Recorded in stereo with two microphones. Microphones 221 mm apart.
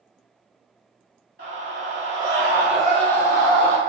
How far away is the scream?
About 1.4 m.